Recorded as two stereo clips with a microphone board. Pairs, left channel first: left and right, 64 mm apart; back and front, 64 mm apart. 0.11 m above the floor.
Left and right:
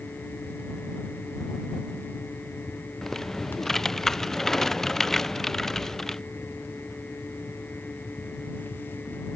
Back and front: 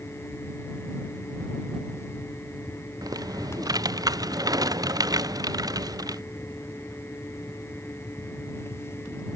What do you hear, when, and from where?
3.0 s typing on a keyboard: 5° left